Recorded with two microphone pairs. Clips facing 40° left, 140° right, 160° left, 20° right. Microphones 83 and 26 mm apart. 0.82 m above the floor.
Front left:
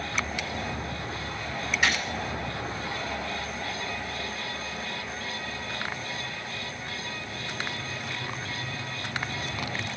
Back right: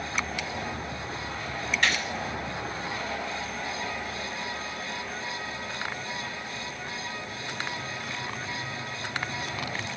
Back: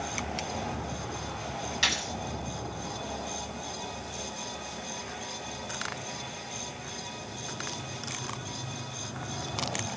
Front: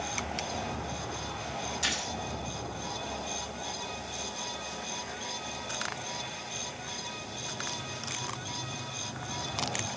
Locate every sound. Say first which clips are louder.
1.8 s a gunshot: front left 1 dB, back 5 dB; 125° left, 7 m